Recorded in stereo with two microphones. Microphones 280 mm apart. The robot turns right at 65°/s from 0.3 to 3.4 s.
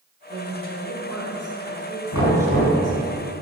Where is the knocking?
100° left, 2.5 m; by 2.8 s 145° left, 2.5 m.